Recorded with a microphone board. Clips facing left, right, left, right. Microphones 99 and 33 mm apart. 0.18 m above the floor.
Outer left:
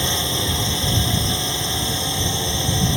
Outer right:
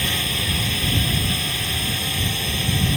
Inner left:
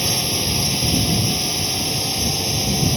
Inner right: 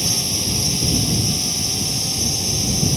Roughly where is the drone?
Left.